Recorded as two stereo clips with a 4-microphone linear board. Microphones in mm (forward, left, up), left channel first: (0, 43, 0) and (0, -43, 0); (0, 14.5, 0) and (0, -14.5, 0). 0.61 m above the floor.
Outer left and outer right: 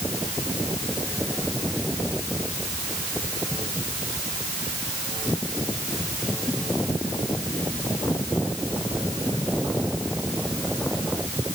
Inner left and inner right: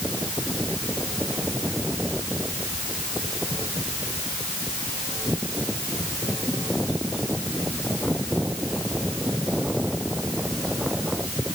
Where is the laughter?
No laughter in this recording.